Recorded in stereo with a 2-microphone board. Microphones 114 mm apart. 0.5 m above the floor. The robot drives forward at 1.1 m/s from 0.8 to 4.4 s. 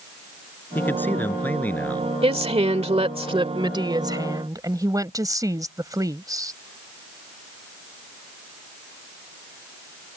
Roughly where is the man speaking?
Centre.